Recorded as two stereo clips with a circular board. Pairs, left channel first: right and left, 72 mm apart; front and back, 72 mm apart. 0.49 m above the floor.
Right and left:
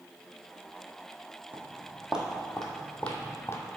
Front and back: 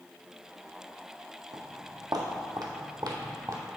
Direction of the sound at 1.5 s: 155° left.